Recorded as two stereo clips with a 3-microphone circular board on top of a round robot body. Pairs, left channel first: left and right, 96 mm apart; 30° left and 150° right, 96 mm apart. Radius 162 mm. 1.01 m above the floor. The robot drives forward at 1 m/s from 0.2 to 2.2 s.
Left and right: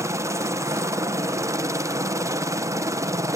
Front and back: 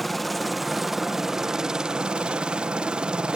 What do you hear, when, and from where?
0.0 s a helicopter: 60° right; by 3.4 s 80° right